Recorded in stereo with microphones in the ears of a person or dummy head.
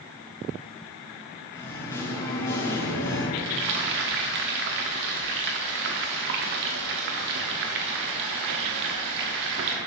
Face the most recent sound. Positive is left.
turn(degrees=-55)  # may be behind; listen again after turning